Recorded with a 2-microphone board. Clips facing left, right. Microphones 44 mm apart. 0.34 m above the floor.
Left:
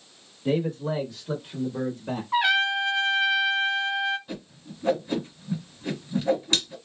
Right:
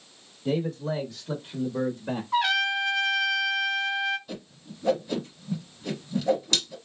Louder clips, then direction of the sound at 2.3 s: Left 2 dB; 25° left (ahead or behind).